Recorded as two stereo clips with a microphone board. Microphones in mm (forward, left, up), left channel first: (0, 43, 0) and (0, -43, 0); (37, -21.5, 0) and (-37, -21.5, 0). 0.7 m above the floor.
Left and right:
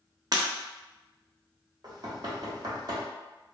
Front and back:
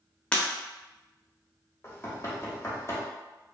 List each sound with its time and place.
0.3 s breaking glass: 70° right, 0.5 m
1.8 s knocking: 55° right, 0.7 m